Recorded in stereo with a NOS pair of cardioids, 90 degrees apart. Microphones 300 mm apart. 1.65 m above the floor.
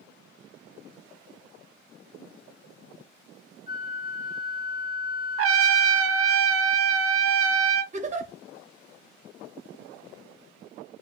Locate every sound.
3.7 s a flute: 30° left, 1.3 m
5.4 s a trumpet: 50° right, 0.7 m
7.9 s a giggle: 25° right, 1.1 m